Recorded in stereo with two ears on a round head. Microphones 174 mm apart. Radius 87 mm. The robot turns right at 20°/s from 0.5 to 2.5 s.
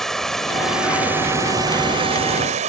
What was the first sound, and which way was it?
Running water, straight behind.